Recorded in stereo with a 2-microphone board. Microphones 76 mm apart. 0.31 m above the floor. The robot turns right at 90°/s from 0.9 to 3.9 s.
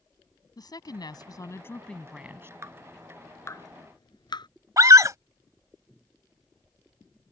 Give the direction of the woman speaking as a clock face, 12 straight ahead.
9 o'clock.